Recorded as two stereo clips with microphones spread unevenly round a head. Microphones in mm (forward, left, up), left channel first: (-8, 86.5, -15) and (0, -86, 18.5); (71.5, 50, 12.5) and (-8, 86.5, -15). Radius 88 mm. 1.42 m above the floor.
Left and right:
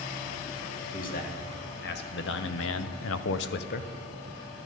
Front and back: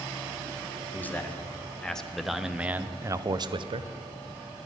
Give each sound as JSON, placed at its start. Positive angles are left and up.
{"t": 0.9, "sound": "a man speaking", "azimuth_deg": 45, "distance_m": 1.5}